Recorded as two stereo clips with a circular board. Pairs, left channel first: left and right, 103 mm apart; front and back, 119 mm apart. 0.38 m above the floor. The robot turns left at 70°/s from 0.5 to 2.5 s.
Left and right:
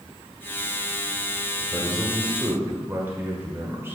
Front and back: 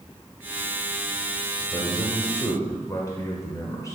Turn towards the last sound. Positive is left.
turn(degrees=-40)